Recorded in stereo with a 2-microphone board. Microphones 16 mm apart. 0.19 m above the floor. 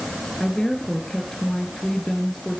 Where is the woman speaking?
35° left (ahead or behind), 2.5 m.